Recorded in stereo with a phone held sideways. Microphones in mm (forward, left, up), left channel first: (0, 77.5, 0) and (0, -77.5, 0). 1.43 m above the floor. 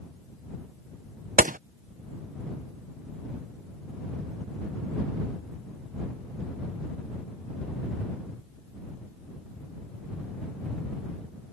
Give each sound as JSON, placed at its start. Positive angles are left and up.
{"t": 1.4, "sound": "a gunshot", "side_deg": -60}